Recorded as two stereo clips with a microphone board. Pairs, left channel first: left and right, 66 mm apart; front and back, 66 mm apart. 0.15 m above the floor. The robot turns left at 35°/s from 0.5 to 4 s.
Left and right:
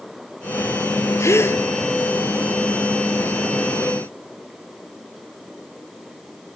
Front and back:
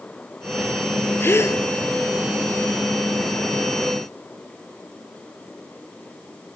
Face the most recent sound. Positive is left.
turn(degrees=-45)